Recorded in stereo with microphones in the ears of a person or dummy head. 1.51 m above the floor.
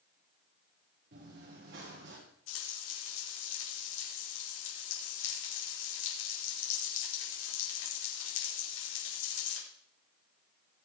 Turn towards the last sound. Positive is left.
turn(degrees=80)